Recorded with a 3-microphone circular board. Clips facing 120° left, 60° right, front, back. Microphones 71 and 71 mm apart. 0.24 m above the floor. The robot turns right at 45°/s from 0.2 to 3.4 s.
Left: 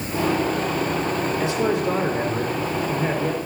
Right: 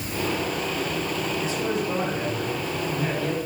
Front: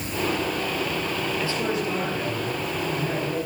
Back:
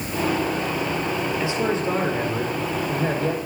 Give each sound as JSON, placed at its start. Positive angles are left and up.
{"t": 1.4, "sound": "a man speaking", "azimuth_deg": 105, "distance_m": 5.0}